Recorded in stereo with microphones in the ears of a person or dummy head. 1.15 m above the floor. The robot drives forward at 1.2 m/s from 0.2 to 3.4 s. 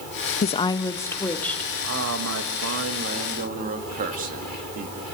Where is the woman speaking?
40° left (ahead or behind), 0.5 m; by 1.7 s 10° left (ahead or behind), 2.0 m.